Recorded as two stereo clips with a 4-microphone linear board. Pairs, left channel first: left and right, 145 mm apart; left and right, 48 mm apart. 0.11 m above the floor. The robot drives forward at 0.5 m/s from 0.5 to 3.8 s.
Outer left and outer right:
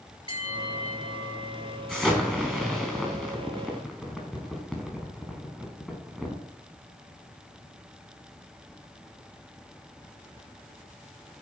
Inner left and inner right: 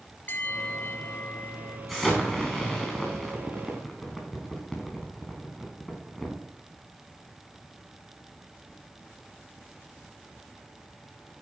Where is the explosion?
5° right (ahead or behind), 3.5 m.